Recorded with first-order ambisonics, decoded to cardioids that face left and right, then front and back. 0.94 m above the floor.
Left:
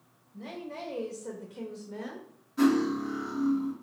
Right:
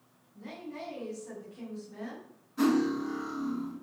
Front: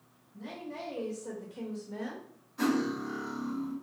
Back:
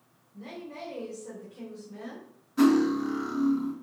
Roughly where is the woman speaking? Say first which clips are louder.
Left 3 dB, back 1 dB; left.